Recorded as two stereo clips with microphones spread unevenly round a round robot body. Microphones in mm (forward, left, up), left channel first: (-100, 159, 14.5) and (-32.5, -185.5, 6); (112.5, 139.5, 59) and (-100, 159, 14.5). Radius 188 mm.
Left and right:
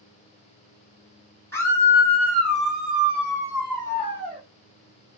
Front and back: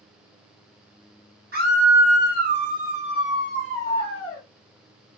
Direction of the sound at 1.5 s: 175° right.